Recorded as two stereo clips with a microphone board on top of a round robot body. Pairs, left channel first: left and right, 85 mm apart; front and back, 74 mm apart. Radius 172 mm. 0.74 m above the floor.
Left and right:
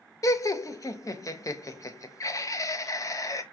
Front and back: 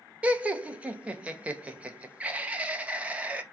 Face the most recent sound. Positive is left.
turn(degrees=115)